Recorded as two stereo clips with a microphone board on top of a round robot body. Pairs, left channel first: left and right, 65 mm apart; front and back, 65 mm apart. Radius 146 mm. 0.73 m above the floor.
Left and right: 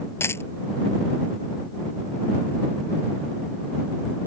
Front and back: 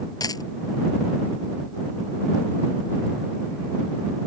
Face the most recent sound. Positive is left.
turn(degrees=35)